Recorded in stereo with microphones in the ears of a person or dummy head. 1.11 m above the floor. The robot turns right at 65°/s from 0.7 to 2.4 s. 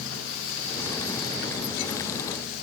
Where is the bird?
I don't hear a bird.